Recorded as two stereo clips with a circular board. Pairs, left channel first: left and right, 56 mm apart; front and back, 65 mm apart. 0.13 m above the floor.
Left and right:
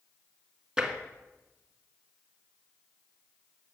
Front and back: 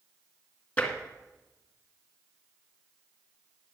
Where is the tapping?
25° right, 1.6 m.